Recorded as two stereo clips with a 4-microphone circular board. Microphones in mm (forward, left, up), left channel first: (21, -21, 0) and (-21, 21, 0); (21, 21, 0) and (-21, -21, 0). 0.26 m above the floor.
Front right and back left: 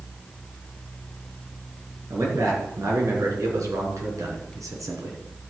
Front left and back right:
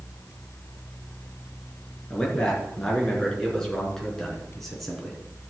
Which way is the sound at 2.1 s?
115° left.